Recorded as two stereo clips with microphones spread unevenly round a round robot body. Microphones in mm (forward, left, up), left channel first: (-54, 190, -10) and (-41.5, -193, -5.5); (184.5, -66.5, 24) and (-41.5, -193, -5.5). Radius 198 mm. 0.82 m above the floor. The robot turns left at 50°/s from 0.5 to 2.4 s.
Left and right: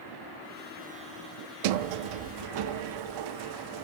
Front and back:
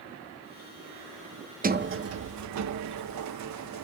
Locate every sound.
1.6 s a sliding door: 85° right, 0.6 m; by 3.8 s 120° right, 0.6 m